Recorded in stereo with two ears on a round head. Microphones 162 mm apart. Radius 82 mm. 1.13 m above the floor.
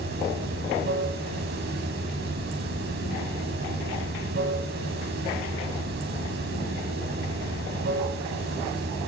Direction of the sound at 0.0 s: 65° right (ahead or behind).